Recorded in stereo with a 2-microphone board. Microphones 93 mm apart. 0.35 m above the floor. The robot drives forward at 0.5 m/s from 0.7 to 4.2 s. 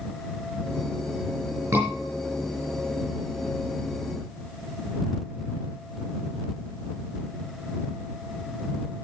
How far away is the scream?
About 5 m.